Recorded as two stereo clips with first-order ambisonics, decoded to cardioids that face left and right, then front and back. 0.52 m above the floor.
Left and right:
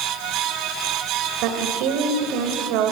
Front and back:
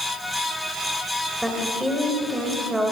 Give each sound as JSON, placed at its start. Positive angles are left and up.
{"t": 1.4, "sound": "a woman speaking", "azimuth_deg": -90, "distance_m": 2.5}